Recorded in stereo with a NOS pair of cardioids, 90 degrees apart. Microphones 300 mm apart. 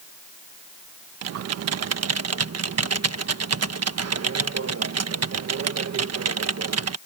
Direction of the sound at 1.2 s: 60° right.